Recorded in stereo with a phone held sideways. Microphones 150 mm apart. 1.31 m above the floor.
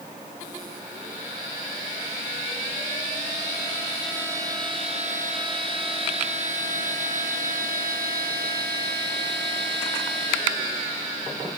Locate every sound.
Only background noise.